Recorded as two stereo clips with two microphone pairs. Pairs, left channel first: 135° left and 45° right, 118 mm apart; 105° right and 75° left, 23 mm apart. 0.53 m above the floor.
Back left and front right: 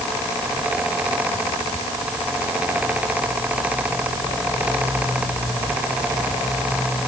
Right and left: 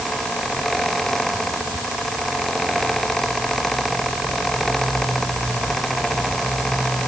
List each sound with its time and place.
Only background noise.